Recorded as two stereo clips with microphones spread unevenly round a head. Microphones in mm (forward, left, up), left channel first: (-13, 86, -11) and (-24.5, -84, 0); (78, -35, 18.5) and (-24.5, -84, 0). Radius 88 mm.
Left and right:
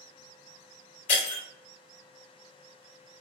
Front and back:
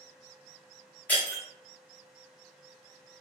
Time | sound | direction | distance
1.1 | breaking glass | 85° left | 1.4 m